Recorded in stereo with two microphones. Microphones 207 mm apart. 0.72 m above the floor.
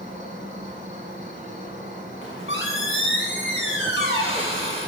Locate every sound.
0.0 s an insect: 40° right (ahead or behind), 1.2 m
2.2 s a squeak: 75° left (ahead or behind), 1.6 m